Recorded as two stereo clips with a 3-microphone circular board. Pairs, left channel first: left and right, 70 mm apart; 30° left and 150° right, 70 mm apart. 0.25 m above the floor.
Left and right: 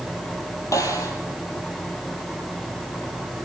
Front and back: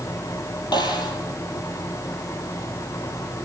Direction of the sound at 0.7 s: 45° left.